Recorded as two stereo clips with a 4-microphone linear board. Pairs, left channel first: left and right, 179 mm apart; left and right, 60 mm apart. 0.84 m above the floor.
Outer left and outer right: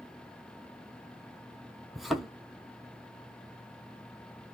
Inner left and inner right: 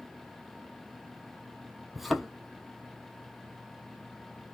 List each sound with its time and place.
1.9 s a thud: centre (ahead or behind), 1.0 m